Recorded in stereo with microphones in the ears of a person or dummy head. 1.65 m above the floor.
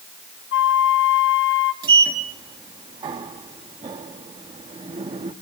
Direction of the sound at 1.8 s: 25° right (ahead or behind).